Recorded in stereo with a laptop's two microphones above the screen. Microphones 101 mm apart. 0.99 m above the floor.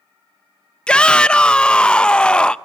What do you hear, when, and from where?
0.9 s a shout: 10° left (ahead or behind), 0.5 m